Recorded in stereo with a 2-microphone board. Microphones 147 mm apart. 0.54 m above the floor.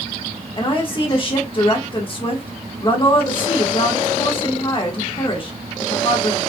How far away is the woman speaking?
About 1.2 m.